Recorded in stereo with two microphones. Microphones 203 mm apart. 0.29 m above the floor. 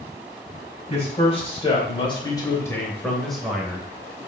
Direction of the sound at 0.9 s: 30° left (ahead or behind).